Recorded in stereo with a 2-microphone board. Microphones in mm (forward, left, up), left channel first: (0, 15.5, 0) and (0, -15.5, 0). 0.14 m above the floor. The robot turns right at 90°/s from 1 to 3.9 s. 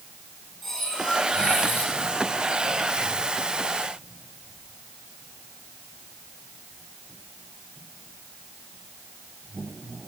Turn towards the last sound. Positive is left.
turn(degrees=-90)